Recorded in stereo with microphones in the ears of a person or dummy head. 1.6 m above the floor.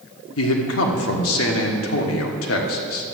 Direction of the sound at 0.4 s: 90° left.